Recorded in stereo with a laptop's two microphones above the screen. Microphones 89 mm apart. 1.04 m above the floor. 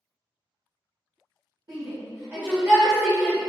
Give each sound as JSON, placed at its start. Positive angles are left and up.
{"t": 1.7, "sound": "a shout", "side_deg": -55, "distance_m": 1.3}